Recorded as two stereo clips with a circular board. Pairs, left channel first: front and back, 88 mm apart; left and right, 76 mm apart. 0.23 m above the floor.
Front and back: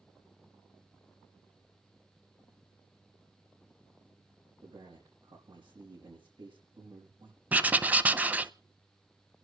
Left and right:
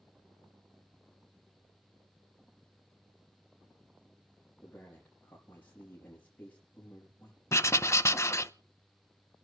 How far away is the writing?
About 0.6 m.